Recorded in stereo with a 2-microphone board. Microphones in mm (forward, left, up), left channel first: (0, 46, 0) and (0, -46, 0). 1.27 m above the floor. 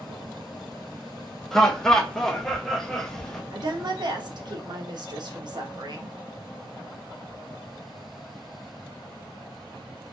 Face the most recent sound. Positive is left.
turn(degrees=-50)  # may be behind; listen again after turning